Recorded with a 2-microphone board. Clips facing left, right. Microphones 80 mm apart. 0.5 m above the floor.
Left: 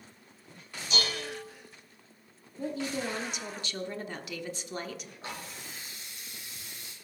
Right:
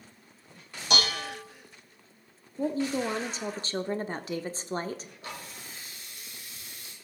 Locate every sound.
0.9 s dishes clattering: 70° right (ahead or behind), 1.9 m
2.6 s a woman speaking: 35° right (ahead or behind), 0.9 m
5.2 s a running tap: 30° left (ahead or behind), 5.5 m